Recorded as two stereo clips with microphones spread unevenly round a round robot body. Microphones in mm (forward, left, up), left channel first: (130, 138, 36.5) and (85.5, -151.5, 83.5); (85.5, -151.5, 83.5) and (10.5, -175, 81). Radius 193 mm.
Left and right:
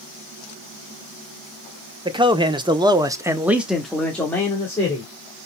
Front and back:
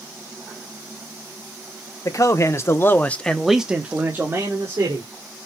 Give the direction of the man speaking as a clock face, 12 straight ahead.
1 o'clock.